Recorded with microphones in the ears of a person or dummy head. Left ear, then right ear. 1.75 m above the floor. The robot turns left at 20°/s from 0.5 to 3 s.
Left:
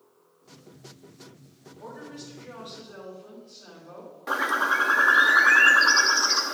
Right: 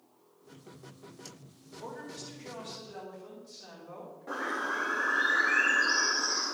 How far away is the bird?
About 0.6 m.